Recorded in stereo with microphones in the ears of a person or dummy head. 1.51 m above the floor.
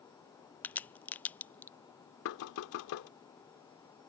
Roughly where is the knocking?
Left.